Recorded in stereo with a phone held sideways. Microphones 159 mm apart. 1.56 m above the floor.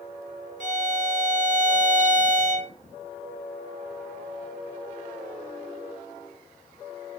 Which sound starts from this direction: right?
A violin, at 0.6 s.